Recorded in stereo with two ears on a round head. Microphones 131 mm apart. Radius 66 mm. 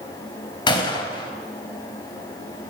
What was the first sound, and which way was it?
A gunshot, 30° left (ahead or behind).